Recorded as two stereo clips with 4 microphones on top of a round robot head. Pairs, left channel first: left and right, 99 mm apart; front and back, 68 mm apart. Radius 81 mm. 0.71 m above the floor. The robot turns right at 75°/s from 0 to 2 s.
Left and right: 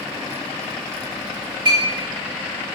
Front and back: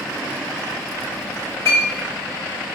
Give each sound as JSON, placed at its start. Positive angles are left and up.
{"t": 1.6, "sound": "a clink", "azimuth_deg": -55, "distance_m": 1.4}